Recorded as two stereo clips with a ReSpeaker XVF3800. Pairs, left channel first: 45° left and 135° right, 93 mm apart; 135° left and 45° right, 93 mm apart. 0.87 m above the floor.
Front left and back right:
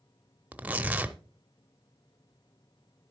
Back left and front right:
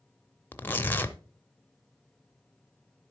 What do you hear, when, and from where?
0.5 s tearing paper: 170° left, 0.6 m